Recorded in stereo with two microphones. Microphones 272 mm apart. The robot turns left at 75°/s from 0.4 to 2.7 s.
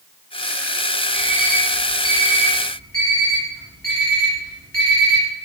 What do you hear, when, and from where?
1.1 s an alarm clock: 5° left (ahead or behind), 2 m; by 5.2 s 55° left (ahead or behind), 2 m